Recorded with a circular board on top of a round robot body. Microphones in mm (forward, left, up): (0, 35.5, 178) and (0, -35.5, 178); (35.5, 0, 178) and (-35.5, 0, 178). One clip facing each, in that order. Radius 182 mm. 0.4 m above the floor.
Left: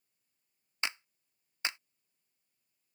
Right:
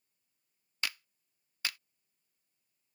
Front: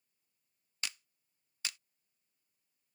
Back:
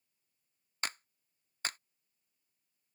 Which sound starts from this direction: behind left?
A clap, at 0.8 s.